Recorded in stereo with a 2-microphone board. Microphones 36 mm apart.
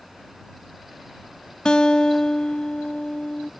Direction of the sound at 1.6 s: 25° left (ahead or behind).